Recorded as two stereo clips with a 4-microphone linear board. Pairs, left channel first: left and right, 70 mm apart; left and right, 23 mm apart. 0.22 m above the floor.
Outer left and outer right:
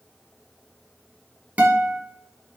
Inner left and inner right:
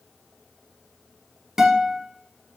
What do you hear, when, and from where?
1.6 s a guitar: 20° right (ahead or behind), 0.7 m